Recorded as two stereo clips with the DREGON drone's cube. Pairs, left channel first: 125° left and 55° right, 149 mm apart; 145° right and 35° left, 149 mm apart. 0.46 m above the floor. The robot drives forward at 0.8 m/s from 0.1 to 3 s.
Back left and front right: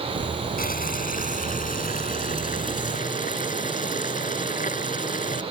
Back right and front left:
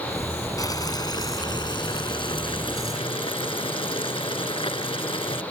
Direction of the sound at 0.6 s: 150° left.